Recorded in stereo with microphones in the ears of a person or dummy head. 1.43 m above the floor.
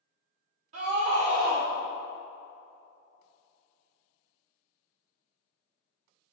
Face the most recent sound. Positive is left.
turn(degrees=-45)  # may be behind; listen again after turning